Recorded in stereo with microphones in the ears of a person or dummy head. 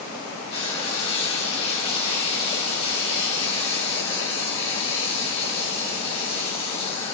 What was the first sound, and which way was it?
Frying, 30° left (ahead or behind).